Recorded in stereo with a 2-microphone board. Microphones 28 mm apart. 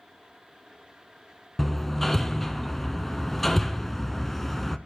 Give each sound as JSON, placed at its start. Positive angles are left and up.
{"t": 1.6, "sound": "hammering", "side_deg": 10, "distance_m": 0.6}